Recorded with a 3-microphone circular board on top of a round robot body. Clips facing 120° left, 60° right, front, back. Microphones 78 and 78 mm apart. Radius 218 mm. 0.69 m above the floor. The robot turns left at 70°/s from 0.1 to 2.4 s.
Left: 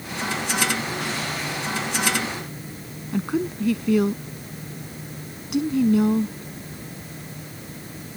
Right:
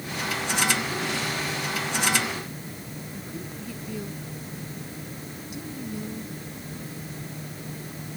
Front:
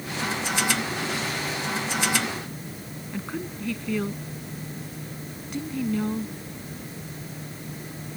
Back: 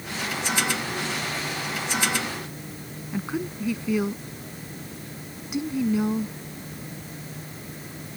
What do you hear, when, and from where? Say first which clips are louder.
3.1 s a woman speaking: left 17 dB, back 4 dB; 100° left